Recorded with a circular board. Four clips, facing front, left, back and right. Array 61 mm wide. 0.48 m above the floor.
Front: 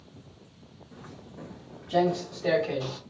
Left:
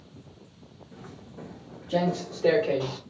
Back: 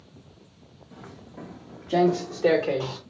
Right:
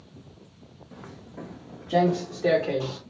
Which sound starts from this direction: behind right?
Footsteps, at 0.9 s.